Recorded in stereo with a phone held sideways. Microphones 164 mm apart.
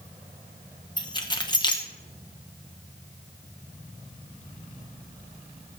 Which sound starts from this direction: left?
Keys jangling, at 1.0 s.